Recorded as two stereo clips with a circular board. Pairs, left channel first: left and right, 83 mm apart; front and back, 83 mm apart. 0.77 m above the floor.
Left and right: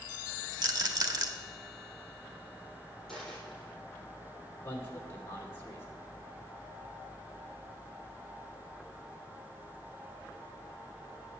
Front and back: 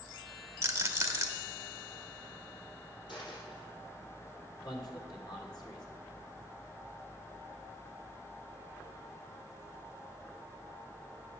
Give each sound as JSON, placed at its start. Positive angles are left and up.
{"t": 0.6, "sound": "a rattle", "azimuth_deg": -125, "distance_m": 1.2}
{"t": 3.1, "sound": "a dropped coin", "azimuth_deg": 5, "distance_m": 6.5}
{"t": 4.6, "sound": "a man speaking", "azimuth_deg": 30, "distance_m": 2.5}